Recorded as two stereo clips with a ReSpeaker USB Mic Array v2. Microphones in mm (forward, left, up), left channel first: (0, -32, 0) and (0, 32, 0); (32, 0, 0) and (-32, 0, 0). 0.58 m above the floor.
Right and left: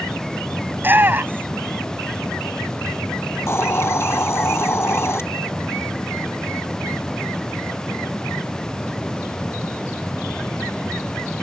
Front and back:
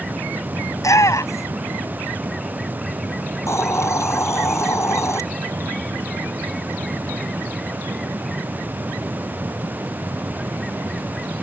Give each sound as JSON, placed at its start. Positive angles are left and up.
{"t": 0.7, "sound": "a shout", "azimuth_deg": 30}
{"t": 3.5, "sound": "a hiss", "azimuth_deg": -40}